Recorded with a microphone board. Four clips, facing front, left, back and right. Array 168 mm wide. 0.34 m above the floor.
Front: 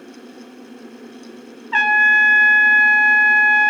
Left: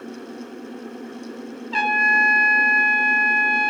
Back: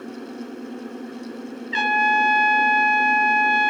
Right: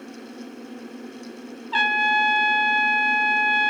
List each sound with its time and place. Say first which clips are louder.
1.7 s a trumpet: left 2 dB, front 4 dB; 15° right, 1.7 m